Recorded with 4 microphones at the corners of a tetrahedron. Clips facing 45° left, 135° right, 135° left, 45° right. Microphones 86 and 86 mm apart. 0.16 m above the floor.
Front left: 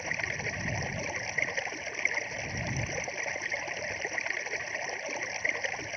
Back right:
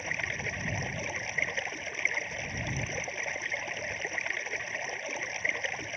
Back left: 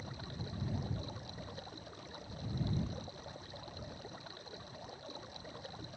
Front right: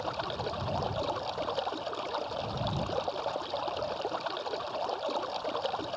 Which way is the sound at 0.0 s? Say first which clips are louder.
Even, front right 14 dB; 45° right.